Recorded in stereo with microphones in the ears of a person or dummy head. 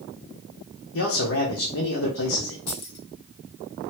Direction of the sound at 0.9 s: 70° left (ahead or behind).